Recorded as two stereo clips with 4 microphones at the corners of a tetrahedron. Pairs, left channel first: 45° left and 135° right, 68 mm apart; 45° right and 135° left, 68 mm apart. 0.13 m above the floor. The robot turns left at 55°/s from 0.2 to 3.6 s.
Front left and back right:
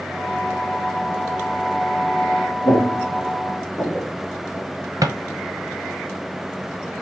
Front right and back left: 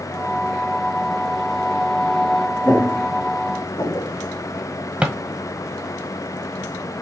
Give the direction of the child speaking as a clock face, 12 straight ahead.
I don't hear a child speaking.